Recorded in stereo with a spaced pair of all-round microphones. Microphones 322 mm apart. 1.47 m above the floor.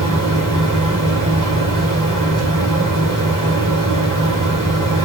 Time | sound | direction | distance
0.0 | a fan | 75° right (ahead or behind) | 6.5 m